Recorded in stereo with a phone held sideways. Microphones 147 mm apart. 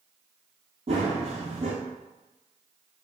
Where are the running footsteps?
45° right (ahead or behind), 1.4 m.